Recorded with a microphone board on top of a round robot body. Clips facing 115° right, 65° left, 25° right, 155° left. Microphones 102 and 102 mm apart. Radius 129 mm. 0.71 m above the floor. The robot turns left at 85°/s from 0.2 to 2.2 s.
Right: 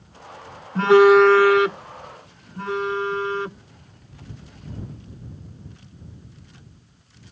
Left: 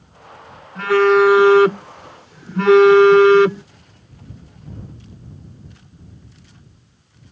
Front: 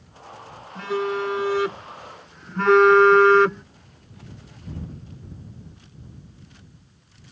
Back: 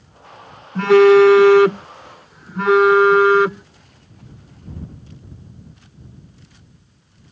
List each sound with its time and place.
0.8 s a phone buzzing: 165° right; by 3.6 s 70° left